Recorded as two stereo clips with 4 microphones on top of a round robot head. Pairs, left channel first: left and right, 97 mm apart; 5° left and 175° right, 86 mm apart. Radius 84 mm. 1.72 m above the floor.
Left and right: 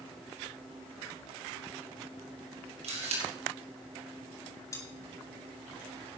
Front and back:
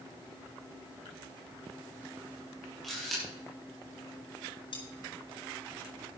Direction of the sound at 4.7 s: 30° left.